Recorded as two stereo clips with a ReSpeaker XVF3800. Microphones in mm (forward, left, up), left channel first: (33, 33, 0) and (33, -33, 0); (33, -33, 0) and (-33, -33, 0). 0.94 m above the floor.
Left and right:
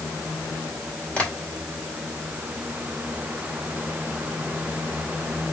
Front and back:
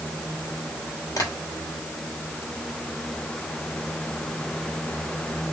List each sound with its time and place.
1.2 s tapping: 20° left, 2.5 m